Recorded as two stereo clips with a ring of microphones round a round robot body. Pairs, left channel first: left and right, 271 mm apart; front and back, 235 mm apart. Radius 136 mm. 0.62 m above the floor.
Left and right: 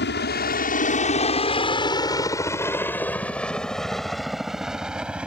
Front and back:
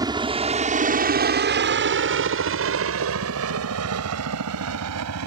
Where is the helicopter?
115° left; by 5.3 s 175° right.